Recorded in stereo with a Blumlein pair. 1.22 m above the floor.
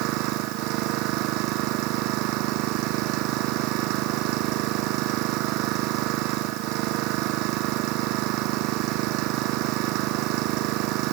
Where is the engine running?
40° right.